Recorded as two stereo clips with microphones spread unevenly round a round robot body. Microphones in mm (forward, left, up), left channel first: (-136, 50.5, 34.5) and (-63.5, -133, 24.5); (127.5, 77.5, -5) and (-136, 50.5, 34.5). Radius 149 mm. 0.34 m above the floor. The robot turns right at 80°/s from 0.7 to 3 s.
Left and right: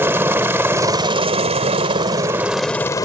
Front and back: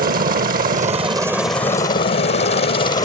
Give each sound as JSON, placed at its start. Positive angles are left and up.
{"t": 0.0, "sound": "a helicopter", "azimuth_deg": -135}